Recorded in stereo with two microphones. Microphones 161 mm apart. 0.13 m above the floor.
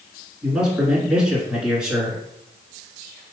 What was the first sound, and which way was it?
A man speaking, 5° right (ahead or behind).